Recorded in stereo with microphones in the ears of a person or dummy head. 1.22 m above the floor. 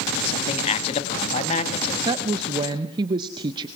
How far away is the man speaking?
About 1.8 m.